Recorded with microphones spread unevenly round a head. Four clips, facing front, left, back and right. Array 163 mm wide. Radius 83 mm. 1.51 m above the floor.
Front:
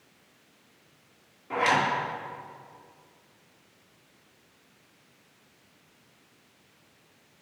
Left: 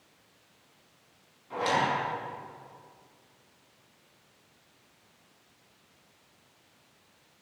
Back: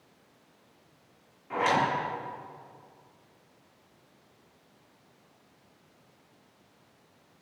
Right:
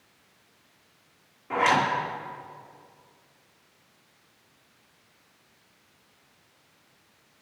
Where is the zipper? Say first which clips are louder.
Right 5 dB, front 1 dB; 60° right, 4.5 m.